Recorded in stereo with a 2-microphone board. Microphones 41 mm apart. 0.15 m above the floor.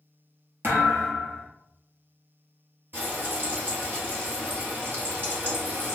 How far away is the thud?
About 1.3 m.